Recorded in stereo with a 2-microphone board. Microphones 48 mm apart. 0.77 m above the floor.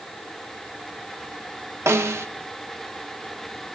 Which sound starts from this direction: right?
A snare drum, at 1.9 s.